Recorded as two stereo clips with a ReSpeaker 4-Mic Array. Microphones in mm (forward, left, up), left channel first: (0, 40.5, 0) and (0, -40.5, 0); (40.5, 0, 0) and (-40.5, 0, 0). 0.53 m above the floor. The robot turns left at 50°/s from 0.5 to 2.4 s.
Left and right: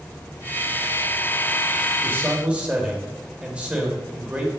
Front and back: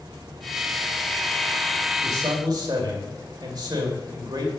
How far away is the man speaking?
About 2.5 m.